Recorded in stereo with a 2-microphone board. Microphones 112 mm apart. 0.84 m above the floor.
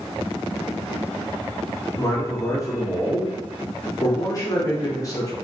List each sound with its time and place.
2.0 s a man speaking: 30° left (ahead or behind), 0.8 m